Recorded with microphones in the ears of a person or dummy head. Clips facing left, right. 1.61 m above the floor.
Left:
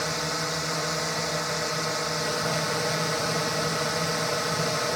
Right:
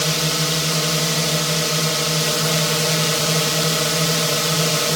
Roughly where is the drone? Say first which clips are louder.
Right 7 dB; right.